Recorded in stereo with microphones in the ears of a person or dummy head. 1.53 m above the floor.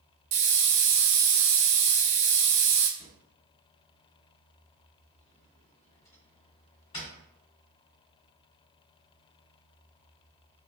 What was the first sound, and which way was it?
A hiss, 65° right (ahead or behind).